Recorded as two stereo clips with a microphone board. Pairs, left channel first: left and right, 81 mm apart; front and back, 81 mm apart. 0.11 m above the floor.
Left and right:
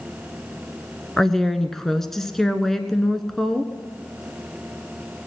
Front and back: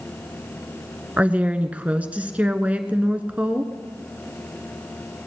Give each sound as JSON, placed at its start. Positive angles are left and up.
{"t": 1.2, "sound": "a woman speaking", "azimuth_deg": 165, "distance_m": 1.0}